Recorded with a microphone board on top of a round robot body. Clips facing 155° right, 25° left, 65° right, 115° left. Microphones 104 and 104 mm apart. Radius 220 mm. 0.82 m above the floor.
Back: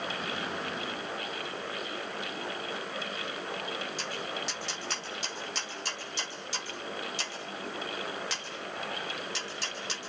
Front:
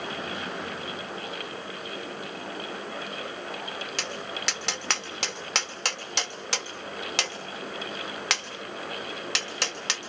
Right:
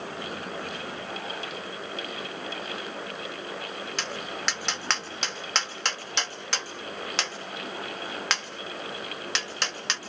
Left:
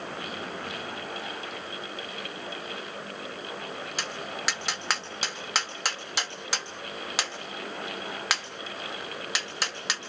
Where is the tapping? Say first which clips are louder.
Front 1 dB, right 1 dB; 30° left, 3 m.